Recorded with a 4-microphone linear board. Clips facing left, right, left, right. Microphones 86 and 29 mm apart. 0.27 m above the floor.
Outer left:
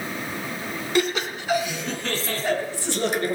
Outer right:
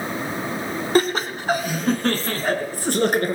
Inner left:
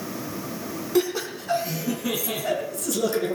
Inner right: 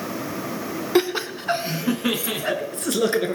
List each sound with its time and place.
0.9 s laughter: 40° right (ahead or behind), 2 m; by 3.3 s 50° right (ahead or behind), 3.5 m